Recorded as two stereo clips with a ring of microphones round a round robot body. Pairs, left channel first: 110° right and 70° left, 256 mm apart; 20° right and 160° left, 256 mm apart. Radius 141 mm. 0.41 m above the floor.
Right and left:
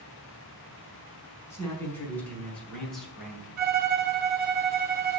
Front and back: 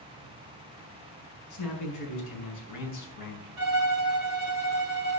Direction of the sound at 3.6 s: 125° left.